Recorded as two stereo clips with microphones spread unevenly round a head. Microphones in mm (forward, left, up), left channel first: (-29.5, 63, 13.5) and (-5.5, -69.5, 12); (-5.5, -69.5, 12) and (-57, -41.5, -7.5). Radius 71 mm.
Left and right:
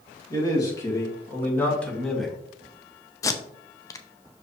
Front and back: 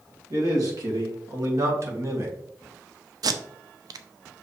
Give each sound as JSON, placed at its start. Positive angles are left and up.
{"t": 0.3, "sound": "a man speaking", "azimuth_deg": 160, "distance_m": 3.0}
{"t": 3.2, "sound": "tape being pulled", "azimuth_deg": 165, "distance_m": 0.7}